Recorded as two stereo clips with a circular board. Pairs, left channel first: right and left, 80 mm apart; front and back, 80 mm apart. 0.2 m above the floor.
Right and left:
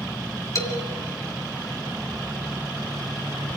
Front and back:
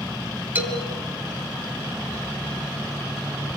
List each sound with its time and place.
0.6 s a man speaking: 120° right, 2 m